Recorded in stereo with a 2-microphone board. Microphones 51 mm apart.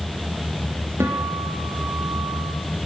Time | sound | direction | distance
1.0 | a guitar | 55° right (ahead or behind) | 5.5 m